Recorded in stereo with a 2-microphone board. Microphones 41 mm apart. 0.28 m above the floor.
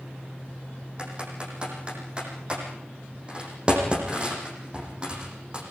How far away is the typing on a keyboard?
About 9 m.